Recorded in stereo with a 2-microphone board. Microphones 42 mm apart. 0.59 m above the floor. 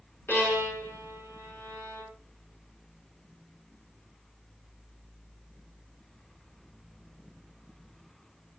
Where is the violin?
60° left (ahead or behind), 5.5 m.